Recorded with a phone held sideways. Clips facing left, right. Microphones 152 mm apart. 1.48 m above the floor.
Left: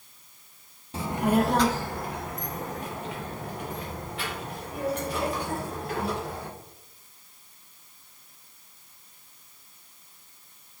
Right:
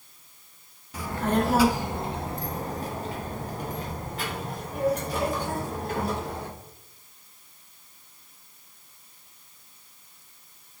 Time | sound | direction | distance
0.9 | a child speaking | 30° left (ahead or behind) | 0.8 m